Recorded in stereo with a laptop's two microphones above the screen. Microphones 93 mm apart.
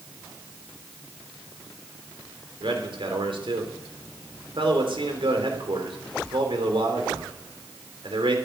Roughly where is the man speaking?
Right.